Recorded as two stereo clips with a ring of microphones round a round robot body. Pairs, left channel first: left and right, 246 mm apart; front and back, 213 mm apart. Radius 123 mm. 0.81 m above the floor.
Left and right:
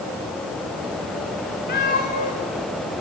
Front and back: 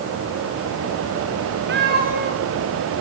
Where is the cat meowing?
145° left, 6.5 m.